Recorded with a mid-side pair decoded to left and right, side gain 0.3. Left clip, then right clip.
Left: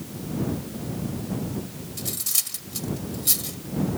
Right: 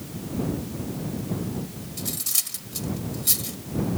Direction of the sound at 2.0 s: Straight ahead.